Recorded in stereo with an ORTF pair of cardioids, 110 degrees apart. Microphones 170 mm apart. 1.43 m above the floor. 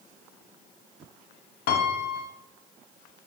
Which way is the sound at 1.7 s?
70° left.